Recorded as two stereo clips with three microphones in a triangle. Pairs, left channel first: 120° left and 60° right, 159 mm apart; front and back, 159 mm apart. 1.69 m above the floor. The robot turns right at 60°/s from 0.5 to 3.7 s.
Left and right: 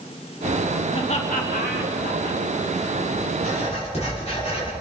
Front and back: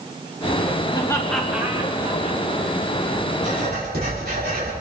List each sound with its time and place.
0.9 s laughter: 60° left, 2.5 m; by 2.4 s 150° left, 2.5 m
3.4 s writing: 150° left, 6 m; by 4.7 s 165° left, 6 m